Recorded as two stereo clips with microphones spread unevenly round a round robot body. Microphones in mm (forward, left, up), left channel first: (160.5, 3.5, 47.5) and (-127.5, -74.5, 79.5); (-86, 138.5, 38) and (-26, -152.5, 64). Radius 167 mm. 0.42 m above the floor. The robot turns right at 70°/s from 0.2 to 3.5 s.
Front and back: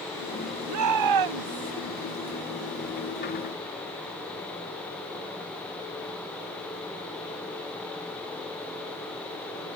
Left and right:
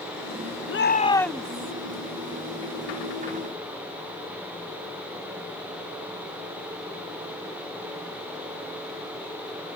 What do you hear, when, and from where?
0.7 s a shout: 145° left; by 1.7 s 140° right